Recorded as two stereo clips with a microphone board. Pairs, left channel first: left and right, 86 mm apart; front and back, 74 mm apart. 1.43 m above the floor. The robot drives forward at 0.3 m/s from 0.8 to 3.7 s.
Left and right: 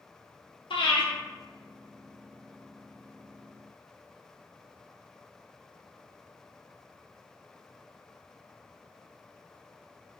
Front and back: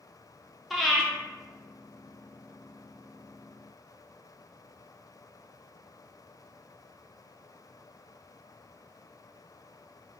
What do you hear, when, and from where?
0.7 s breathing: 90° left, 0.8 m; by 1.1 s 95° left, 0.8 m